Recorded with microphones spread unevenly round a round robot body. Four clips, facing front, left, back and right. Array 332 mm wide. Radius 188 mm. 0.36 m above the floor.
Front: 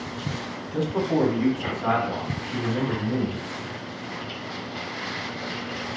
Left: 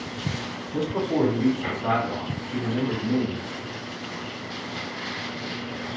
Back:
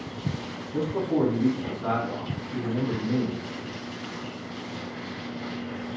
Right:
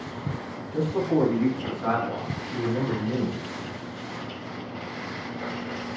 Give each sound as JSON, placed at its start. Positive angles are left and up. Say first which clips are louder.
{"t": 0.7, "sound": "a man speaking", "louder": "right 1 dB, front 2 dB", "azimuth_deg": 65, "distance_m": 1.0}